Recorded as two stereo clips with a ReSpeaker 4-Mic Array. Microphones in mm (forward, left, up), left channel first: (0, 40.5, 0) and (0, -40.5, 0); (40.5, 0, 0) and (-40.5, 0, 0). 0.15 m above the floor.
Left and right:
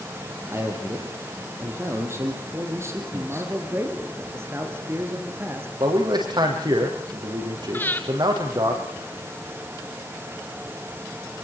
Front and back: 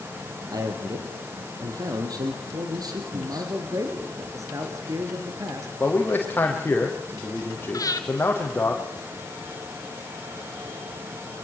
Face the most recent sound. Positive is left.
turn(degrees=30)